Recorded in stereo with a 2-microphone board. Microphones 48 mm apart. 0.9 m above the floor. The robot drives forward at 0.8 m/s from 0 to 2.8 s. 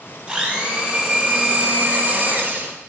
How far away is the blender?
About 2 m.